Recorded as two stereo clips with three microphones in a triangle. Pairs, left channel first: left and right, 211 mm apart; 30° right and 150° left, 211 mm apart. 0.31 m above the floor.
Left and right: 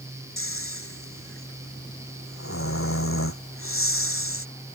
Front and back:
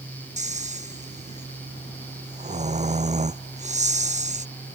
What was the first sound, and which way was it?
Snoring, 95° left.